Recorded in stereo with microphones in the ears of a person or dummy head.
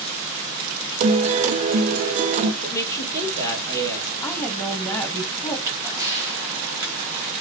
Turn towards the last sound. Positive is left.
turn(degrees=-15)  # may be behind; listen again after turning